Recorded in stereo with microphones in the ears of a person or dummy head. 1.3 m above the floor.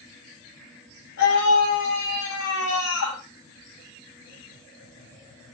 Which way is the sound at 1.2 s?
90° left.